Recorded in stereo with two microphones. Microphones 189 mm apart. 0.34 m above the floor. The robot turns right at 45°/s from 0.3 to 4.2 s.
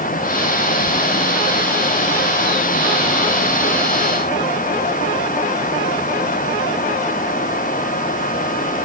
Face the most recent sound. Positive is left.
No sound to turn to.